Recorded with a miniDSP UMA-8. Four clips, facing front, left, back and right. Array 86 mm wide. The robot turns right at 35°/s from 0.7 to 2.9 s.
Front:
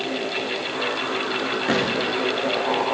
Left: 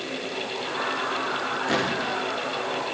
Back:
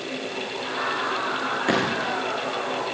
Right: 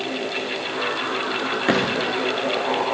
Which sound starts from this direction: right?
A gunshot, at 1.7 s.